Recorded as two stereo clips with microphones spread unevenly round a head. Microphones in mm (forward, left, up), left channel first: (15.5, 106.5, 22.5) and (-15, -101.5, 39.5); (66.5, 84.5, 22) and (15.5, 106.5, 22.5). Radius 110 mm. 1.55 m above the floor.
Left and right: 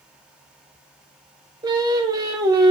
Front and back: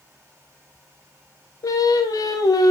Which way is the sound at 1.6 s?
25° right.